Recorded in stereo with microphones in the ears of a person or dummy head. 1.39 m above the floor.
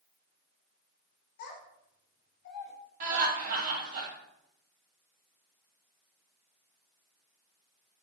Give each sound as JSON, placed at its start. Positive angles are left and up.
{"t": 1.4, "sound": "a child speaking", "side_deg": 65, "distance_m": 1.3}
{"t": 3.0, "sound": "laughter", "side_deg": -50, "distance_m": 1.2}